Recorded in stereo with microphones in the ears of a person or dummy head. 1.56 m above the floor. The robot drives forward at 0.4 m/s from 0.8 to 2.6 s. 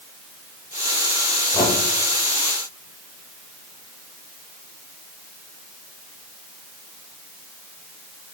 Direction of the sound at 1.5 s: 15° left (ahead or behind).